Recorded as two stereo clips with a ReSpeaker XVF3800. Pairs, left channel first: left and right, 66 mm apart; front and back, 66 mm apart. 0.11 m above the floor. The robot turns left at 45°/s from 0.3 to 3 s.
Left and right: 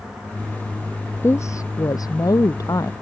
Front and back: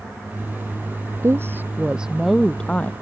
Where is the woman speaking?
140° left; by 2.9 s 60° left.